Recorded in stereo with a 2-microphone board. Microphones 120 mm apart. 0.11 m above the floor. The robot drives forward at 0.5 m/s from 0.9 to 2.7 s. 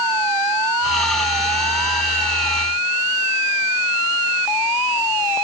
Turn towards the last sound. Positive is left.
No sound to turn to.